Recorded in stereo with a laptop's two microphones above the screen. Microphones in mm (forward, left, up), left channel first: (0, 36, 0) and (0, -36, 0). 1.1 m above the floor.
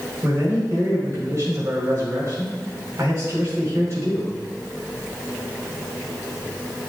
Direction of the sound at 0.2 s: 45° right (ahead or behind).